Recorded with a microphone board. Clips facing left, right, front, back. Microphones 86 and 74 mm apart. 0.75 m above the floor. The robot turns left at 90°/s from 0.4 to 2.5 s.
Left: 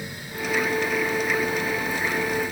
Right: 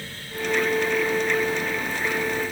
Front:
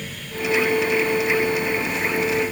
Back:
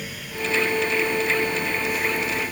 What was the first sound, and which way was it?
Only background noise.